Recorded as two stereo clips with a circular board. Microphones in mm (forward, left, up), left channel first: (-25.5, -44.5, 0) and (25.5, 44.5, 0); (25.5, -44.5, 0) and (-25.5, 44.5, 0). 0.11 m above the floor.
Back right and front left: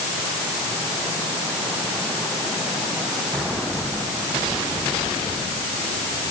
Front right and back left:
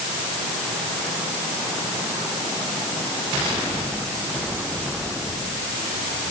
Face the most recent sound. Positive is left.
No sound to turn to.